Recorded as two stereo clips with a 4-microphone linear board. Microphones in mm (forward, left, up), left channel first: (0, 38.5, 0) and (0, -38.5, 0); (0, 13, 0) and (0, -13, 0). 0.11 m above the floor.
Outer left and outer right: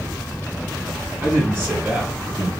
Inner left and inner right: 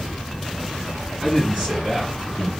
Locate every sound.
1.2 s a man speaking: 30° right (ahead or behind), 1.9 m; by 2.5 s 10° right (ahead or behind), 1.9 m